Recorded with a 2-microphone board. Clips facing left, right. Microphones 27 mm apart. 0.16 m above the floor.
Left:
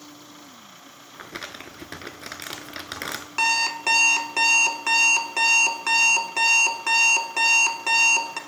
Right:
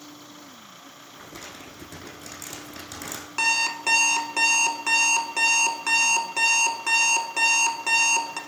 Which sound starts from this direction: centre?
An alarm clock, at 3.4 s.